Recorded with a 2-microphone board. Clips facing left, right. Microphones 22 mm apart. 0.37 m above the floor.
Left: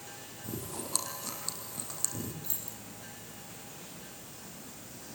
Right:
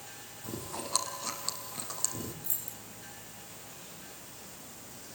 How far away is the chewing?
About 4 m.